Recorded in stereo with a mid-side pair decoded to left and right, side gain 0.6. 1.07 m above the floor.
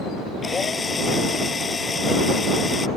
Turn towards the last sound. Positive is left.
turn(degrees=25)